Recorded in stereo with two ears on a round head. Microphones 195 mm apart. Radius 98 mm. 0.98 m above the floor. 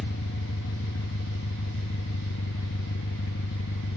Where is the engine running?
60° left (ahead or behind), 0.7 m.